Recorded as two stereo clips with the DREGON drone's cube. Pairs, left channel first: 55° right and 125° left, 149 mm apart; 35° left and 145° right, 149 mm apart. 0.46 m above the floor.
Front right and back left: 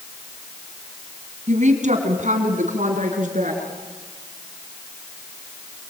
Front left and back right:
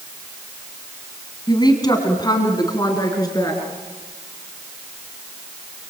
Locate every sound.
1.5 s a woman speaking: 95° left, 3.5 m; by 3.6 s 100° left, 6 m